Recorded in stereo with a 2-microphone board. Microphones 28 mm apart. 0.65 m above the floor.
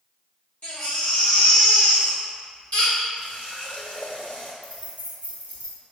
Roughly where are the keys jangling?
Left.